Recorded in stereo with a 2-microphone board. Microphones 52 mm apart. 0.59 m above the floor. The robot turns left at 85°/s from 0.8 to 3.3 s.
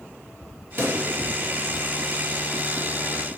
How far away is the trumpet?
No trumpet in this recording.